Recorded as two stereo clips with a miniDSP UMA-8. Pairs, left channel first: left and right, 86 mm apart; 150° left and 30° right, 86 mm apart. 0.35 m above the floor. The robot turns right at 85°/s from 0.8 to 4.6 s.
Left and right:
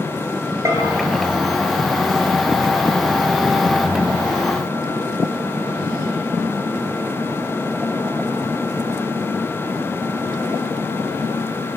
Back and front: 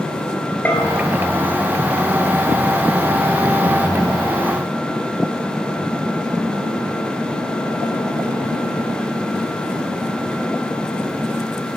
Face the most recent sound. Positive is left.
turn(degrees=180)